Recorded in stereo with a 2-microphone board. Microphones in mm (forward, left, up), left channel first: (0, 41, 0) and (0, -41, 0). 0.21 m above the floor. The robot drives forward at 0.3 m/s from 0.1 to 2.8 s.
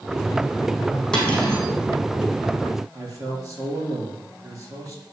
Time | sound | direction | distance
1.1 | cutlery clinking | 5° left (ahead or behind) | 4.5 m
2.9 | a man speaking | 40° right (ahead or behind) | 5 m